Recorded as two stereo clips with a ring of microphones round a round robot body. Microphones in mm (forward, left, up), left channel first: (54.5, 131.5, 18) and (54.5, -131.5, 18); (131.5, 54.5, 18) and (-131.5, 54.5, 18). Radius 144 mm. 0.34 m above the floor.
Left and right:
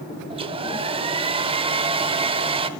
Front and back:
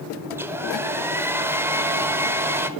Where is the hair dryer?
115° right, 1.0 m.